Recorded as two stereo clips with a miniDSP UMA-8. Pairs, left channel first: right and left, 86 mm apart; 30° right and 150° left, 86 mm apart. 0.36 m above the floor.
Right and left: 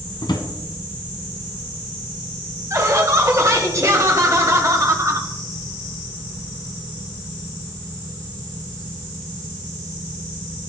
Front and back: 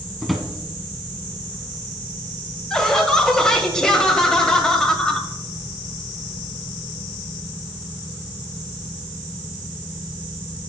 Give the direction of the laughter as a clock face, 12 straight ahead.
10 o'clock.